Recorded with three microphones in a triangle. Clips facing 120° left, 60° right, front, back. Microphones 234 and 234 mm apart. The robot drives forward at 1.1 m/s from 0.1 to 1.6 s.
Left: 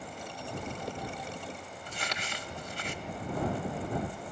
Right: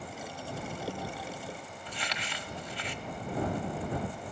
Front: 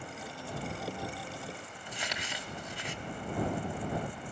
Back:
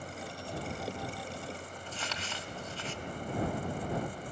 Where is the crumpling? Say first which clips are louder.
Left 1 dB, front 3 dB; 75° left, 1.0 m.